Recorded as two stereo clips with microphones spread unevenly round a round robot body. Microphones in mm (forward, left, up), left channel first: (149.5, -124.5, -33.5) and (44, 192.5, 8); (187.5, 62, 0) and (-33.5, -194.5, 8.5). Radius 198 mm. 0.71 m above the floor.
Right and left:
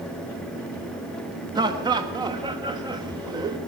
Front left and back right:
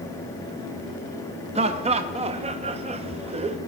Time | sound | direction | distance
1.6 | laughter | 175° right | 0.7 m